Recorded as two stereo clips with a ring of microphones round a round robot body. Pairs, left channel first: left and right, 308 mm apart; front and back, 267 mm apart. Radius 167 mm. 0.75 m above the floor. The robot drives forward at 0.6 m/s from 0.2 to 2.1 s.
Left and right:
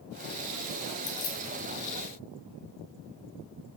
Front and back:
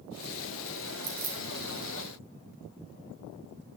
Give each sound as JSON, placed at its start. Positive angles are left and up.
{"t": 1.0, "sound": "keys jangling", "azimuth_deg": 135, "distance_m": 3.0}